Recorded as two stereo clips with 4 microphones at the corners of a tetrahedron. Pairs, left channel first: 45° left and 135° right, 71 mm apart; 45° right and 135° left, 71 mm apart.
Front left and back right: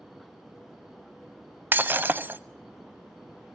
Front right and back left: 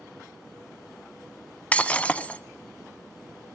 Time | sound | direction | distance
1.7 | breaking glass | 100° right | 0.7 m